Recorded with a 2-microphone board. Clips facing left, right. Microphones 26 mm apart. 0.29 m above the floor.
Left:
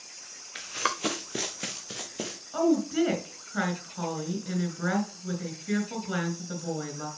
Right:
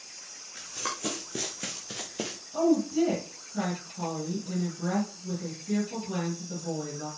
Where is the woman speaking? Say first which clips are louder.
Even; 70° left (ahead or behind), 3.5 m.